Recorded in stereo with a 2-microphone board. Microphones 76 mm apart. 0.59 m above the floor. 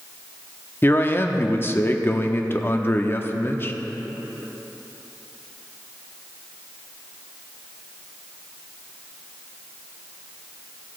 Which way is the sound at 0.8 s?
30° left (ahead or behind).